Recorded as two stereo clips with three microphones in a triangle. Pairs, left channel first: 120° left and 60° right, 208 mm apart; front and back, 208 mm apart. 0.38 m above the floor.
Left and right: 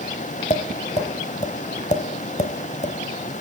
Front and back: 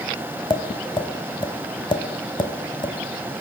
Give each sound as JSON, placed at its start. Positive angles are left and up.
{"t": 0.5, "sound": "tapping", "azimuth_deg": 65, "distance_m": 1.1}